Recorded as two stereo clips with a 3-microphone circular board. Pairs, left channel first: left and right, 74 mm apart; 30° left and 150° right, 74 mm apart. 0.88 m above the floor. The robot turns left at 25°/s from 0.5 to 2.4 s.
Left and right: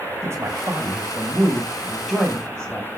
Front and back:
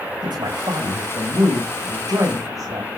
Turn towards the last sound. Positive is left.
turn(degrees=175)